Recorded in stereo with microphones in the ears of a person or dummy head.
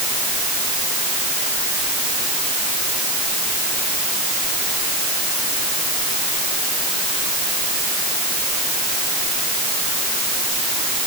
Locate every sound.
Only background noise.